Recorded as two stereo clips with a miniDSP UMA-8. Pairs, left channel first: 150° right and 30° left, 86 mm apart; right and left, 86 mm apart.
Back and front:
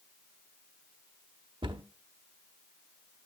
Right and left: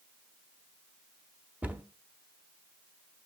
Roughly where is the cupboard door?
Ahead.